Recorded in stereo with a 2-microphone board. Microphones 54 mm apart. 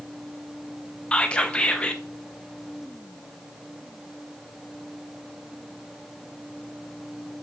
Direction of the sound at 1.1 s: 20° left (ahead or behind).